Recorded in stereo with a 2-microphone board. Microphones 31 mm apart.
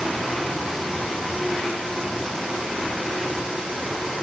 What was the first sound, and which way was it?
Only background noise.